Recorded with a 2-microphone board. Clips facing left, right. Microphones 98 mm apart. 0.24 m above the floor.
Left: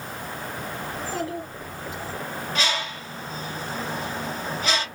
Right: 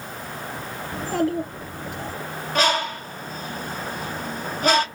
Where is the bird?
50° right (ahead or behind), 1.3 m.